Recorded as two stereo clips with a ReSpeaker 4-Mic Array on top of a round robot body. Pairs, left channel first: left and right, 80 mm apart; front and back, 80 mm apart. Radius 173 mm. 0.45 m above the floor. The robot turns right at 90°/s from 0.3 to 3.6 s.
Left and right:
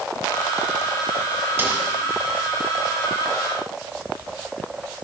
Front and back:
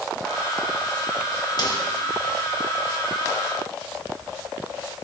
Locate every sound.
1.6 s a snare drum: 25° right, 3.5 m; by 1.9 s 5° right, 3.5 m